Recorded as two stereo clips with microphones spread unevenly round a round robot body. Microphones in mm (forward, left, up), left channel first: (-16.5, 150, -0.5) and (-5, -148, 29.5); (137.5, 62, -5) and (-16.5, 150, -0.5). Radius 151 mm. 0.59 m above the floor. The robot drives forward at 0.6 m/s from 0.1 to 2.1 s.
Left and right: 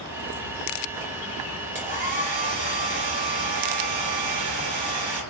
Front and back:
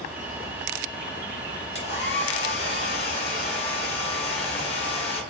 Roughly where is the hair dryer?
Ahead.